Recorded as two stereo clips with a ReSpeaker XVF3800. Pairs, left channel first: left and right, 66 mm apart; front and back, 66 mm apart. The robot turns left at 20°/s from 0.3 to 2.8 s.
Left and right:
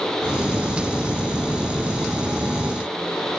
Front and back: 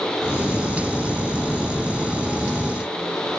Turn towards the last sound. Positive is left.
No sound to turn to.